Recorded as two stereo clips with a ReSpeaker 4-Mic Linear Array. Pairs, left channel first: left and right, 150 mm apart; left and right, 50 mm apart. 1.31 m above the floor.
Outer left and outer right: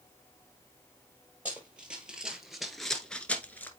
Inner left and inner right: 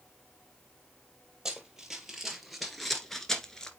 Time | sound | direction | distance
1.4 | running footsteps | 10° right (ahead or behind) | 2.5 m